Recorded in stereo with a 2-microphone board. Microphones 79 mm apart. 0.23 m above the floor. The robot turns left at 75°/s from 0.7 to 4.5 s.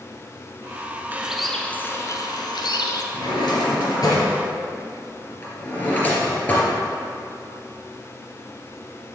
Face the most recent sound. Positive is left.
turn(degrees=25)  # may be behind; listen again after turning